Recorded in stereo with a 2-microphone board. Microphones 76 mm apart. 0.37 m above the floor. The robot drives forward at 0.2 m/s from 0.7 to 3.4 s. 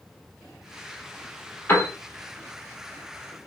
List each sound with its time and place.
1.7 s a piano: 25° left (ahead or behind), 1.6 m